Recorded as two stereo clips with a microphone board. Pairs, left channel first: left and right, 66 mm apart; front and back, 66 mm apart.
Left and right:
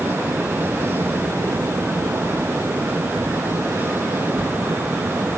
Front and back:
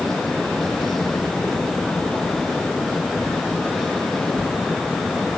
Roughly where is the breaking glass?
No breaking glass in this recording.